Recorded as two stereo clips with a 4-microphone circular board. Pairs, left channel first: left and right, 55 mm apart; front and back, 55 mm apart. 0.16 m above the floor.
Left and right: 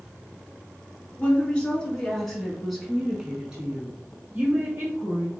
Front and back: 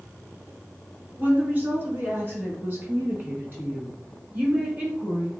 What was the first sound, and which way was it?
A woman speaking, 140° left.